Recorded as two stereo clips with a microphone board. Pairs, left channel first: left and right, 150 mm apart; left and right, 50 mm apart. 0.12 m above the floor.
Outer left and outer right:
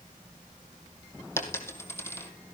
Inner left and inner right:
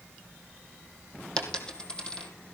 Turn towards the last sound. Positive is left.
turn(degrees=15)  # may be behind; listen again after turning